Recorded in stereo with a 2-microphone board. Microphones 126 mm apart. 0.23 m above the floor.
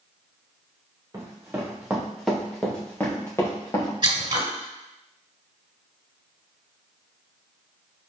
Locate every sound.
1.1 s running footsteps: 25° right (ahead or behind), 1.8 m; by 3.9 s 30° left (ahead or behind), 2.5 m
4.0 s scissors: 40° right (ahead or behind), 1.4 m